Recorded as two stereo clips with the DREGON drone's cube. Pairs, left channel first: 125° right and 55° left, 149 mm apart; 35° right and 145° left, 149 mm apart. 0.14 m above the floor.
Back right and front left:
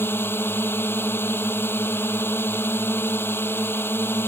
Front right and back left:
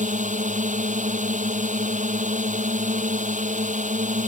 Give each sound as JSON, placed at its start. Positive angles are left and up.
{"t": 0.0, "sound": "a drone", "azimuth_deg": 160}